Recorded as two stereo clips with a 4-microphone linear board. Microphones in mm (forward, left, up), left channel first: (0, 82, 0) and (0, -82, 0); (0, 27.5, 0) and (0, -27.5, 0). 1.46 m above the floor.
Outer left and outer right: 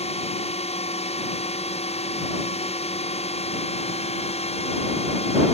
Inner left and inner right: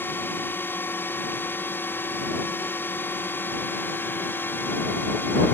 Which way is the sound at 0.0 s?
40° left (ahead or behind).